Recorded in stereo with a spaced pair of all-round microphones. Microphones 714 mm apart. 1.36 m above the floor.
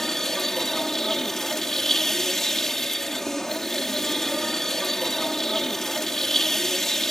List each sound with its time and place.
0.0 s a machine running: centre (ahead or behind)